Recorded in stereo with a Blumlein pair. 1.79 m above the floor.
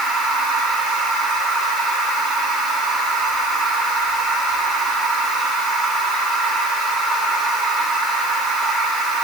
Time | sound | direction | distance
0.0 | a machine running | 20° right | 6 m